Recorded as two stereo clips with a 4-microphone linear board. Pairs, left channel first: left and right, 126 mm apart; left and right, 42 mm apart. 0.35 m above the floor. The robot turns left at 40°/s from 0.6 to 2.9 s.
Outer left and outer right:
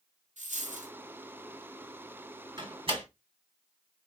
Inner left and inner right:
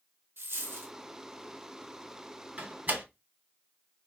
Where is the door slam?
30° right (ahead or behind), 1.4 m; by 3.0 s 40° right (ahead or behind), 1.4 m.